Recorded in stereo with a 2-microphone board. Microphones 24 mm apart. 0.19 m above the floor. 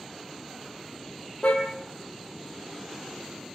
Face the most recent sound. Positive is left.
turn(degrees=70)  # may be behind; listen again after turning